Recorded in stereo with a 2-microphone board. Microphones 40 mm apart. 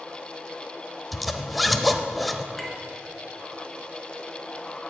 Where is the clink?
5° left (ahead or behind), 2 m.